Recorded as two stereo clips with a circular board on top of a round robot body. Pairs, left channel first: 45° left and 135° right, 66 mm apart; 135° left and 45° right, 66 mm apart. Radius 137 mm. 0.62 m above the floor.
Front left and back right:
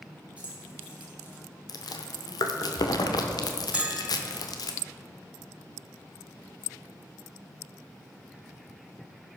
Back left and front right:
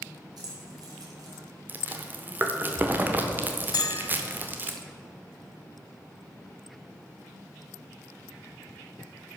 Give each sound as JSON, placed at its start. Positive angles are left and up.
{"t": 0.4, "sound": "keys jangling", "azimuth_deg": -65, "distance_m": 3.0}
{"t": 1.7, "sound": "chewing", "azimuth_deg": 20, "distance_m": 0.8}
{"t": 3.7, "sound": "a bell", "azimuth_deg": 150, "distance_m": 0.8}